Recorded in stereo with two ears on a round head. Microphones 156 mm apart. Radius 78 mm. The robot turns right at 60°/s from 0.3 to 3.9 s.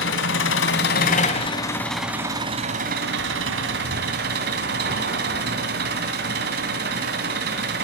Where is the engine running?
80° left, 3 m; by 7.8 s 65° right, 3 m.